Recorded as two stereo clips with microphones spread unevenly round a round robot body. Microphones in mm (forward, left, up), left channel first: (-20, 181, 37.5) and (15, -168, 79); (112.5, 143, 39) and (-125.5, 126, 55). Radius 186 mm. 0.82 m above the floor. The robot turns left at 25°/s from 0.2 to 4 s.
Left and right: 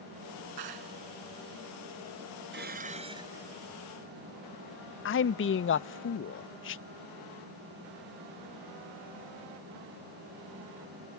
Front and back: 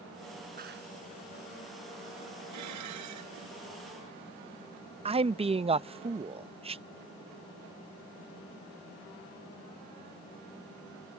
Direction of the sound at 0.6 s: 110° right.